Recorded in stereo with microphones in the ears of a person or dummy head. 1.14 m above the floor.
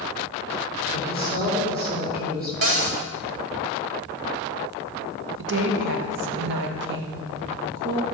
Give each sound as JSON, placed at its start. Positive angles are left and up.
{"t": 0.9, "sound": "a woman speaking", "side_deg": -50, "distance_m": 3.0}
{"t": 2.6, "sound": "a cupboard door", "side_deg": -40, "distance_m": 0.8}
{"t": 5.4, "sound": "a woman speaking", "side_deg": -65, "distance_m": 1.3}